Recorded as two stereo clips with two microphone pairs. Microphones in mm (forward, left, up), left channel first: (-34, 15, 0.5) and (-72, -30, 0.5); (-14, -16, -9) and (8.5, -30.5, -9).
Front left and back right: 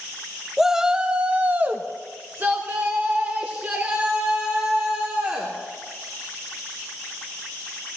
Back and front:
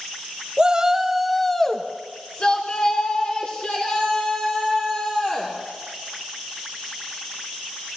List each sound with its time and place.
0.6 s a shout: 55° right, 0.8 m; by 5.5 s 170° left, 3 m